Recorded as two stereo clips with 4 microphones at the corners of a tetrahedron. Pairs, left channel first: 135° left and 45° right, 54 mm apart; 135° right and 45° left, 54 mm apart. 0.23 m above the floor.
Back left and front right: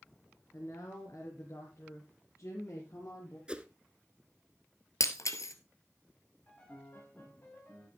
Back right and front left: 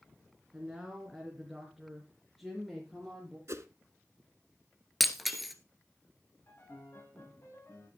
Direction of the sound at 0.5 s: 130° left.